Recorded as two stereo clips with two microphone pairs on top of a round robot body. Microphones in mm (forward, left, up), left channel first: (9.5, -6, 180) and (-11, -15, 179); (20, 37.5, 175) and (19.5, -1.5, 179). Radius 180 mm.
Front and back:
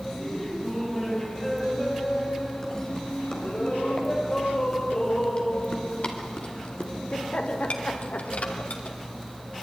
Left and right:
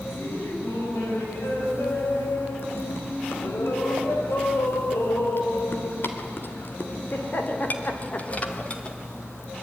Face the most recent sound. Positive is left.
turn(degrees=25)